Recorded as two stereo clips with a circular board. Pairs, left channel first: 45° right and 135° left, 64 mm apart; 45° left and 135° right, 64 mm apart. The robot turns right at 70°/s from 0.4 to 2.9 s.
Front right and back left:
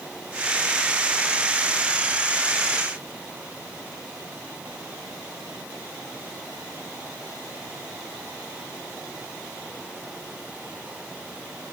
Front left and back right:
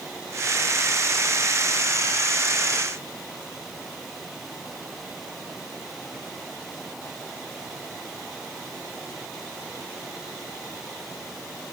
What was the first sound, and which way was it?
Only background noise.